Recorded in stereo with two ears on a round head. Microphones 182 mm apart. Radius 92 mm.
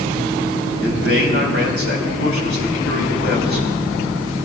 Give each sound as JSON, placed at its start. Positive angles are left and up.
{"t": 0.8, "sound": "a man speaking", "side_deg": 75, "distance_m": 5.0}